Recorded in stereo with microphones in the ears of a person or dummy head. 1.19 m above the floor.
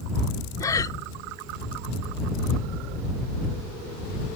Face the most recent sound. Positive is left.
turn(degrees=20)  # may be behind; listen again after turning